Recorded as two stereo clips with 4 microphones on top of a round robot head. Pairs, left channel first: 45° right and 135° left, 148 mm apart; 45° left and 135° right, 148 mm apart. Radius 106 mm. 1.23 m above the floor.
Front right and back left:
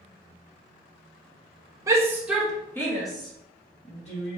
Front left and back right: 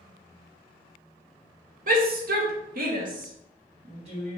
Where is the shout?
160° right, 1.2 m; by 4.4 s 85° right, 2 m.